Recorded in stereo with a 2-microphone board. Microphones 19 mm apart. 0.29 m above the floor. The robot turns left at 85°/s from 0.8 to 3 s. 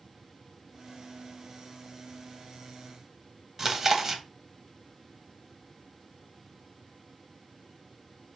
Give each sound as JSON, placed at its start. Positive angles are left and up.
{"t": 3.6, "sound": "chewing", "side_deg": -20, "distance_m": 0.8}